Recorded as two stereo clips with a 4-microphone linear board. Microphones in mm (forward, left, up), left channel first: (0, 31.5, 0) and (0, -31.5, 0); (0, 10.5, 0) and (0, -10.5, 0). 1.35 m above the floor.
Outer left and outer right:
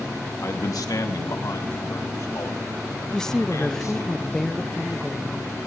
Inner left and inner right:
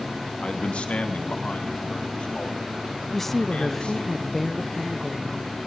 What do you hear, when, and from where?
0.4 s a man speaking: 50° left (ahead or behind), 1.2 m; by 4.1 s 55° left (ahead or behind), 5.5 m
3.1 s a woman speaking: 10° left (ahead or behind), 0.7 m